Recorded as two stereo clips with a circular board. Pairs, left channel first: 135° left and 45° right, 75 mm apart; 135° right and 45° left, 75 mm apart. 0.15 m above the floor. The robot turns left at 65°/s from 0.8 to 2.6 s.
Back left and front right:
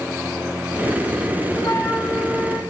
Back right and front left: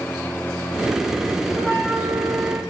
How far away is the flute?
About 1.4 m.